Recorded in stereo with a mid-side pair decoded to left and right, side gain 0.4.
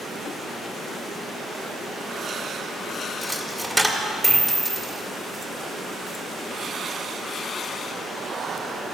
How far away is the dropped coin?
About 1.6 m.